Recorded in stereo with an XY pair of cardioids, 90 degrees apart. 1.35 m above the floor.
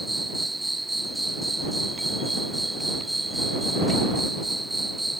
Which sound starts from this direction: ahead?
An insect, at 0.0 s.